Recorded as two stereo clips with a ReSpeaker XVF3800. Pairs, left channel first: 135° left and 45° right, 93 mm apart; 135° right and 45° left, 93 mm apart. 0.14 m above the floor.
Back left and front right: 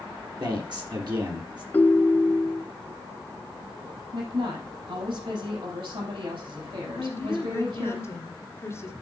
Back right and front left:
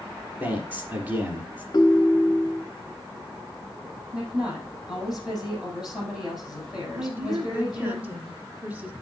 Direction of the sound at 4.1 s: 40° right.